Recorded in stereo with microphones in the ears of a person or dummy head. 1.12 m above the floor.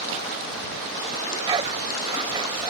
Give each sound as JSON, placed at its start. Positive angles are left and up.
{"t": 1.1, "sound": "a dog barking", "side_deg": -20}